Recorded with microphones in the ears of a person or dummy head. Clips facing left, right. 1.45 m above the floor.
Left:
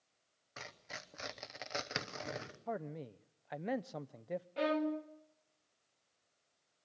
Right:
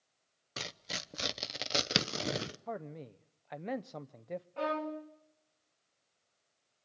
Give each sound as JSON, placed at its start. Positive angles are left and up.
{"t": 0.6, "sound": "tearing paper", "side_deg": -45, "distance_m": 0.9}
{"t": 2.7, "sound": "a man speaking", "side_deg": 0, "distance_m": 0.7}
{"t": 4.6, "sound": "a violin", "side_deg": 20, "distance_m": 1.6}